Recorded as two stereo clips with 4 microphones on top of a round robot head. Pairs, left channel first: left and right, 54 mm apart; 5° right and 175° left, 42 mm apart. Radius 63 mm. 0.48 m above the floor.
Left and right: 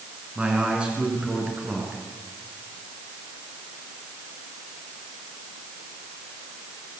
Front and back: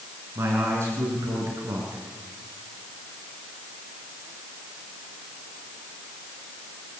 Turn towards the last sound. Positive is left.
turn(degrees=-160)